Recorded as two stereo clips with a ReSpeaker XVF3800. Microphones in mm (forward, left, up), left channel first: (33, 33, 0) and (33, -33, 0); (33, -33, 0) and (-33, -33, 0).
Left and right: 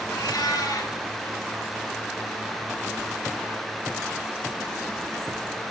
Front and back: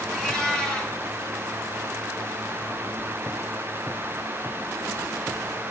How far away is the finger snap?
I don't hear a finger snap.